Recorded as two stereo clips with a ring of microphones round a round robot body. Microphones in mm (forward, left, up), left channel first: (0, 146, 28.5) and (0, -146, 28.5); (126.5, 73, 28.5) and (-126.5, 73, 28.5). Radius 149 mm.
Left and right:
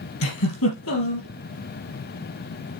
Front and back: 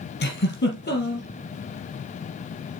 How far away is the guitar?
I don't hear a guitar.